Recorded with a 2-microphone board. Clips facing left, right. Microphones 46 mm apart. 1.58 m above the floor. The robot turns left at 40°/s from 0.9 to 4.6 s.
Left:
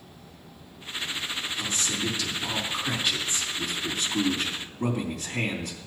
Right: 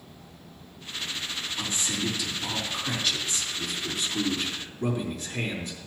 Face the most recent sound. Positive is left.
turn(degrees=100)